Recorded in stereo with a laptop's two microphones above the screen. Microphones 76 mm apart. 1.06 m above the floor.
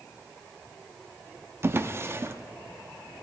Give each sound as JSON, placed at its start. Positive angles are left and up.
{"t": 1.6, "sound": "a drawer", "side_deg": -35, "distance_m": 0.5}